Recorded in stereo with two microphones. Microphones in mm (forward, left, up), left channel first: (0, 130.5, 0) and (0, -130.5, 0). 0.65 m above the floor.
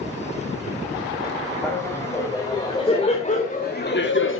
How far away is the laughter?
About 3.5 m.